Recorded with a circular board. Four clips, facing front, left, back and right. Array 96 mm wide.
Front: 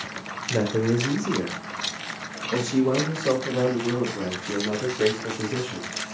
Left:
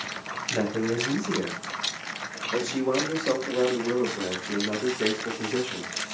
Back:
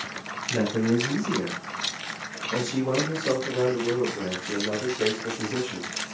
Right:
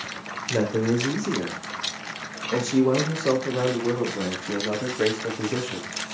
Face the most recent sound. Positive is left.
turn(degrees=-85)